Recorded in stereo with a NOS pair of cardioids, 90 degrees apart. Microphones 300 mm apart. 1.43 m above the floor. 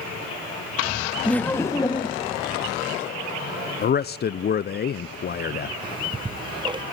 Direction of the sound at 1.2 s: 5° left.